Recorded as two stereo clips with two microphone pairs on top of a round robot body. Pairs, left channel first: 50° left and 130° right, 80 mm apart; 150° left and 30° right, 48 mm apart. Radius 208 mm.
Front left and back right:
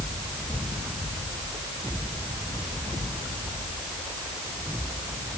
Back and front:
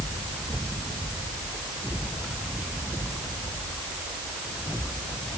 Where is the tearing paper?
I don't hear tearing paper.